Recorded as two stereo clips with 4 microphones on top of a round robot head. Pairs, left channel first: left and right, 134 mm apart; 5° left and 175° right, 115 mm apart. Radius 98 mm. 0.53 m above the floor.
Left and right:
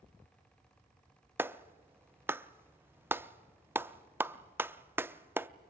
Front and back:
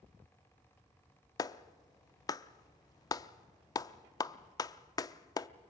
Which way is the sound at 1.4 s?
25° right.